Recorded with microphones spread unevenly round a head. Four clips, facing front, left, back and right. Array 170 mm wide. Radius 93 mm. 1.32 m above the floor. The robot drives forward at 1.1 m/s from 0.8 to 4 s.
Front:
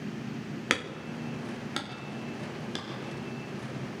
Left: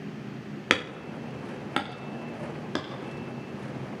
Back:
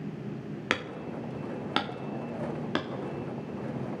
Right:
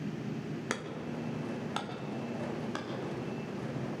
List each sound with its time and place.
0.7 s hammering: 80° left, 1.7 m; by 2.9 s 140° left, 2.5 m